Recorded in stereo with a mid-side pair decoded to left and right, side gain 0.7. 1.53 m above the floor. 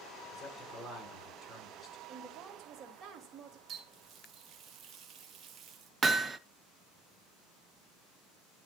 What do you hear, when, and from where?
0.3 s a man speaking: 10° left, 6.5 m
2.1 s a woman speaking: 40° right, 3 m
3.7 s a running tap: 40° right, 1.7 m
6.0 s hammering: 20° right, 0.7 m